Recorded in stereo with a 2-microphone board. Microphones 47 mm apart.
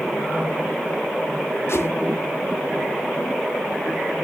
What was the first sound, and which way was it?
A whoosh, 70° left (ahead or behind).